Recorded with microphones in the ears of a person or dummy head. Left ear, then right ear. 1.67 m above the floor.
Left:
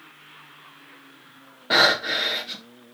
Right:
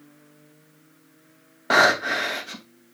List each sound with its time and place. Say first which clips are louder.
1.7 s breathing: right 1 dB; 45° right (ahead or behind), 2.5 m